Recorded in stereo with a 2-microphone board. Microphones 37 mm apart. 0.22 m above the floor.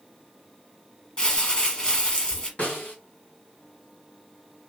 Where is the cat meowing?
I don't hear a cat meowing.